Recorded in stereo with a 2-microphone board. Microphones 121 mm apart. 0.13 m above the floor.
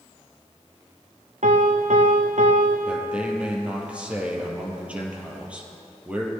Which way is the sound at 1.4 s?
80° right.